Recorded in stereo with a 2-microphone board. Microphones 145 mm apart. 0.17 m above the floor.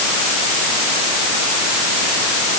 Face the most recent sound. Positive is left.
No sound to turn to.